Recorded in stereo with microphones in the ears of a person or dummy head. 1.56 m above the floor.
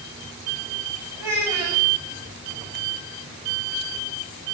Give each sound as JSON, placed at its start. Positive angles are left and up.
{"t": 1.2, "sound": "a child speaking", "side_deg": -10, "distance_m": 10.0}